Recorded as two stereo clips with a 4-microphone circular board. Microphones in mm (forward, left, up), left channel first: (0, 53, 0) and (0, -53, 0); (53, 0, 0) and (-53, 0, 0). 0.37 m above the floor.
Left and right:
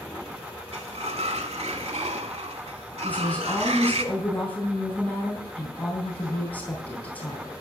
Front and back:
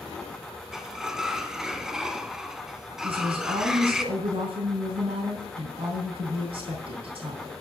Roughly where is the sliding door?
Right.